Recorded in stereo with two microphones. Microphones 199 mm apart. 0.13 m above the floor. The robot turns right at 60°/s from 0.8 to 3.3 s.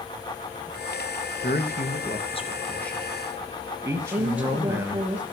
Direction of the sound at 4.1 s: 5° right (ahead or behind).